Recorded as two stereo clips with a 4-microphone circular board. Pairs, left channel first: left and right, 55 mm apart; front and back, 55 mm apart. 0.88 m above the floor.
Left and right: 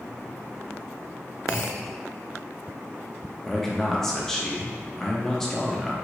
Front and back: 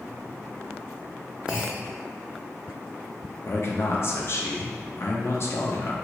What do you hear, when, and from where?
1.5 s a clunk: 110° left, 1.9 m
3.5 s a man speaking: 10° left, 0.6 m